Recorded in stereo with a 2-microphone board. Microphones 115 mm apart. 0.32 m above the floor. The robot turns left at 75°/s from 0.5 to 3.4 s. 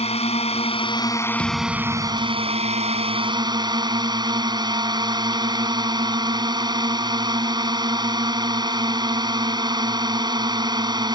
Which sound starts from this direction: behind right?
A thud, at 1.4 s.